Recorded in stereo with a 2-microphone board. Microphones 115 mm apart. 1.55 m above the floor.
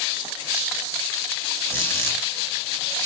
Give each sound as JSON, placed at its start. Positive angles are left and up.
{"t": 1.7, "sound": "a squeak", "side_deg": 20, "distance_m": 1.8}